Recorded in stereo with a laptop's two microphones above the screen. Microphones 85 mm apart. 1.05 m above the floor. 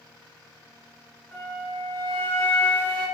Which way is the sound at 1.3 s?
20° left (ahead or behind).